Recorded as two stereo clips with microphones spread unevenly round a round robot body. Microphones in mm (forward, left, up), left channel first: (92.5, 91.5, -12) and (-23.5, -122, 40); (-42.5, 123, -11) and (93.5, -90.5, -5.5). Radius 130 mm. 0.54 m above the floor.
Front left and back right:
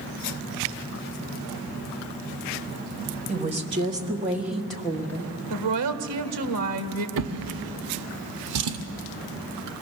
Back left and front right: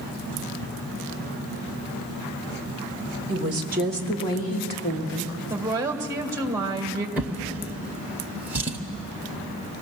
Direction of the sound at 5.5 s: 135° right.